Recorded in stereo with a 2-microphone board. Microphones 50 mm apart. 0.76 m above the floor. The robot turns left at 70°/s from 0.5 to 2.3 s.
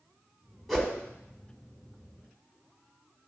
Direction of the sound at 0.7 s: 5° left (ahead or behind).